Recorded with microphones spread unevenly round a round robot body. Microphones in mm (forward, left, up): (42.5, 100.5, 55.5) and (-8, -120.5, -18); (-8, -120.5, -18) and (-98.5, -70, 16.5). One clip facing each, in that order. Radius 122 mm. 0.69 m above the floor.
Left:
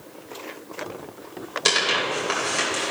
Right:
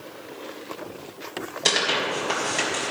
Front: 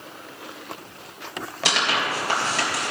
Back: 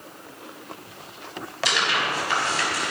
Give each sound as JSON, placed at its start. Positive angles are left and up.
{"t": 1.6, "sound": "tearing paper", "azimuth_deg": -5, "distance_m": 3.0}